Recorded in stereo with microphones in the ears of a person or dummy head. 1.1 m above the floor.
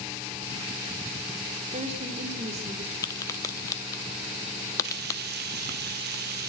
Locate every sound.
1.7 s a woman speaking: 35° right (ahead or behind), 3 m
3.0 s a crack: 15° left (ahead or behind), 1.0 m
4.8 s frying: 50° right (ahead or behind), 0.8 m